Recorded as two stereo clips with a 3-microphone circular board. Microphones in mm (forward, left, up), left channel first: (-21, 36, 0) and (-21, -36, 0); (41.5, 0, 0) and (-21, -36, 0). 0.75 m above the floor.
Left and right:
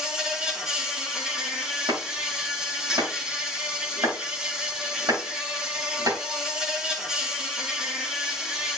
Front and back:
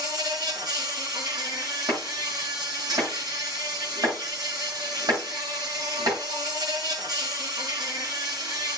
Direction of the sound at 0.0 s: 170° right.